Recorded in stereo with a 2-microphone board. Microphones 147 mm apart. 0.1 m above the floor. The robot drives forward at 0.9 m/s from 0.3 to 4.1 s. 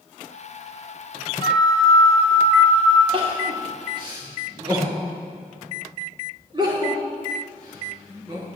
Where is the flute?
35° left (ahead or behind), 0.9 m; by 3.0 s 15° left (ahead or behind), 2 m.